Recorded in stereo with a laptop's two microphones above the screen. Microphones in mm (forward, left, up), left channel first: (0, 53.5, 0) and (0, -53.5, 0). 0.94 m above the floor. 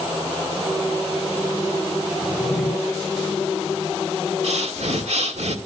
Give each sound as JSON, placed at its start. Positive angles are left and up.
{"t": 2.2, "sound": "a drawer", "side_deg": 0, "distance_m": 9.0}
{"t": 4.4, "sound": "breathing", "side_deg": -75, "distance_m": 2.0}